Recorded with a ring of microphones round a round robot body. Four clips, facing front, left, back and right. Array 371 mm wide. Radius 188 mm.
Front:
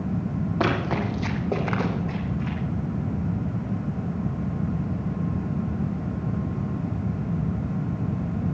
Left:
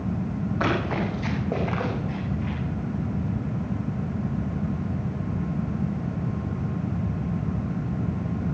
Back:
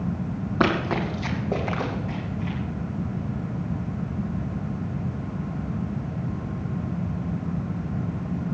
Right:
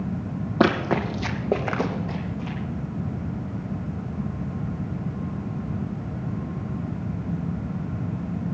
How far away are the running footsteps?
About 2.5 m.